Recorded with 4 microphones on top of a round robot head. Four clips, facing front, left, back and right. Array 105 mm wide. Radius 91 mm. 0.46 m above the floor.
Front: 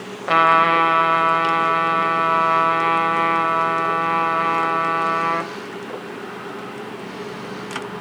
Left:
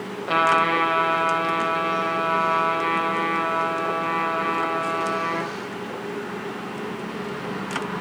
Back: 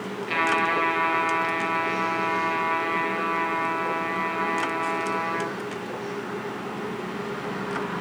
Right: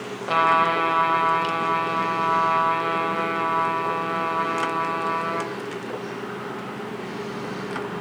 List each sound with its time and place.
0.3 s a trumpet: 5° right, 1.7 m